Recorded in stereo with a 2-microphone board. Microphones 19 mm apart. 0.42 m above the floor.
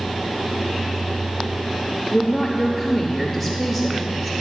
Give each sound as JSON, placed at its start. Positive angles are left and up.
{"t": 2.1, "sound": "a woman speaking", "side_deg": -5, "distance_m": 0.9}